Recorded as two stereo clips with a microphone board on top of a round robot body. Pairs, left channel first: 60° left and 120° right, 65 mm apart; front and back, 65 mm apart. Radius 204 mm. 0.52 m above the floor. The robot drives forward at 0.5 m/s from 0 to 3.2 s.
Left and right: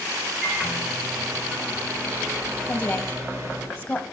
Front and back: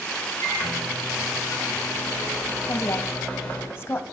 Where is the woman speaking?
Straight ahead, 1.1 m; by 4.0 s 5° left, 1.0 m.